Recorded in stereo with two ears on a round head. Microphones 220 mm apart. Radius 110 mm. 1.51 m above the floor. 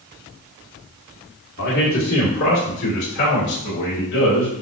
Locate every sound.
1.6 s a man speaking: 40° left (ahead or behind), 1.5 m; by 4.5 s 45° left (ahead or behind), 3 m